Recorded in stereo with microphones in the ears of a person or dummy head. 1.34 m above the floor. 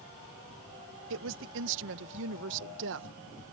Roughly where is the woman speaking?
Right.